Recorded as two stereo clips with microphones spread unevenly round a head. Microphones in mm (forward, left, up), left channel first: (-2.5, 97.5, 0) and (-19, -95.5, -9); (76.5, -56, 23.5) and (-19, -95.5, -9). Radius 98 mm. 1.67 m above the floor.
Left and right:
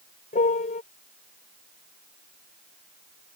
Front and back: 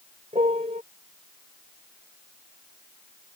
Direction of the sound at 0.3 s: 140° left.